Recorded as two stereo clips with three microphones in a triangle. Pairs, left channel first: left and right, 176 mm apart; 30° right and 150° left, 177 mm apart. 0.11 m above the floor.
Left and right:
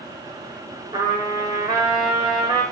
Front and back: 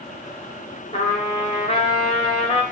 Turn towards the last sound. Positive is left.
turn(degrees=-45)